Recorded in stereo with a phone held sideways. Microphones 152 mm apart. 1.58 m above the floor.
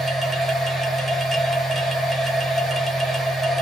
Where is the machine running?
Centre (ahead or behind), 0.9 m.